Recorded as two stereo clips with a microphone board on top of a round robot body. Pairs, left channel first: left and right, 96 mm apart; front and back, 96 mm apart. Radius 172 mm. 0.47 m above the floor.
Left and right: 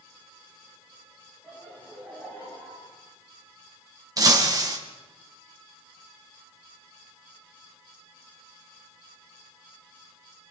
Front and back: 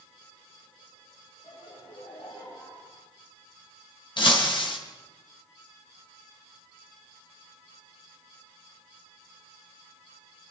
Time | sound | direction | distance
1.4 | laughter | 15° left | 9.5 m
4.2 | breaking glass | 40° right | 3.5 m